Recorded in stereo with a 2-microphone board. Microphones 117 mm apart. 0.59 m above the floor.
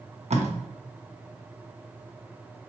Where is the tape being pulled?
70° right (ahead or behind), 0.9 m.